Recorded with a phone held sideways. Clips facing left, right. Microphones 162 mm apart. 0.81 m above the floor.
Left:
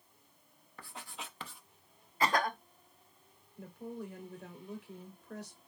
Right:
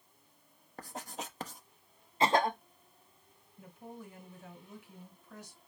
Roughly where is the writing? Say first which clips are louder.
Right 5 dB; right.